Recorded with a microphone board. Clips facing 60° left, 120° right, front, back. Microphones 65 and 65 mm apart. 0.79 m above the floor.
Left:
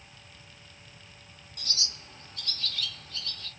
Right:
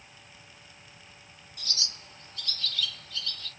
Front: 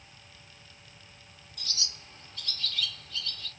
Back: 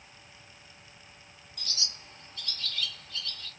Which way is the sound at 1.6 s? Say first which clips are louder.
Even, even; 90° left.